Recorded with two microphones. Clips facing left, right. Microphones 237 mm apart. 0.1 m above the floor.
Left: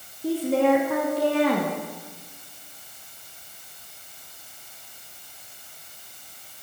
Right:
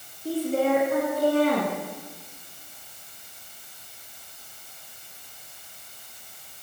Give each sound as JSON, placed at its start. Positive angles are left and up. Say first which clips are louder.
{"t": 0.2, "sound": "a woman speaking", "louder": "left 3 dB", "side_deg": 75, "distance_m": 9.0}